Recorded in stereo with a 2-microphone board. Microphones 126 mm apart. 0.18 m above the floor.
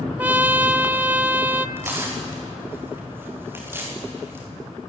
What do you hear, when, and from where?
0.2 s a trumpet: 15° right (ahead or behind), 0.8 m
1.8 s tearing paper: 15° right (ahead or behind), 6.5 m